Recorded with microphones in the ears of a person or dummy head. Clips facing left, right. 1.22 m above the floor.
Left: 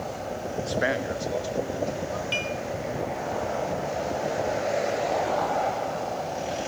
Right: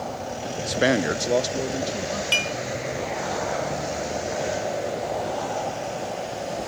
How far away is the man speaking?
About 0.6 m.